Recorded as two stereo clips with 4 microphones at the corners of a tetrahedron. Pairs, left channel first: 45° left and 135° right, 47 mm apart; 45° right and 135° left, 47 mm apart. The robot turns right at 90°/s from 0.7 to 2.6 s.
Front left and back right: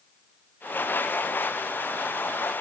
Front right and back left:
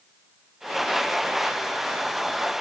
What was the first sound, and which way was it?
Only background noise.